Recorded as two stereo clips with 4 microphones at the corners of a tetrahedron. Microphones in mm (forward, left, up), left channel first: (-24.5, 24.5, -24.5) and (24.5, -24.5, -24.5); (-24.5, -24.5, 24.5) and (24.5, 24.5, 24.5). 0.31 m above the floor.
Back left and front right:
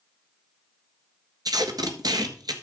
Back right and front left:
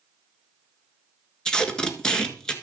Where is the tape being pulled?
55° right, 1.4 m.